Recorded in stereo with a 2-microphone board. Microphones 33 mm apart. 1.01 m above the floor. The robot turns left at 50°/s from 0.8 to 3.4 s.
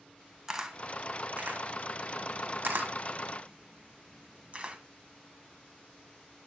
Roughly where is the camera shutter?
Centre.